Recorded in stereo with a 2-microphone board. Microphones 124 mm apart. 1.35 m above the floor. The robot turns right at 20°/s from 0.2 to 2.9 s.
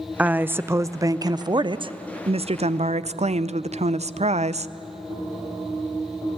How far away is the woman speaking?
About 0.5 m.